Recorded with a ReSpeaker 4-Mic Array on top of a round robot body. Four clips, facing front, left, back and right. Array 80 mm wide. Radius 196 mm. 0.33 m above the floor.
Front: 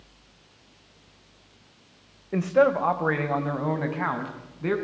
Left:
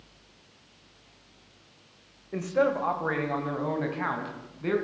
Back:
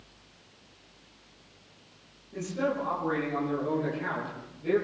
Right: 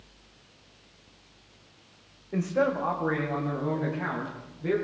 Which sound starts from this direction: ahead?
A man speaking, at 2.3 s.